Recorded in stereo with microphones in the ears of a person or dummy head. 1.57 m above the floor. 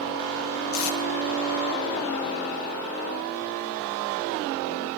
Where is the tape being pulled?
75° left (ahead or behind), 0.9 m.